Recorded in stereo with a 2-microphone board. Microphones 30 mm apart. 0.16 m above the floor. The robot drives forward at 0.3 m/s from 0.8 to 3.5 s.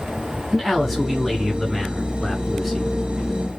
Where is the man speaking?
Centre (ahead or behind), 1.4 m.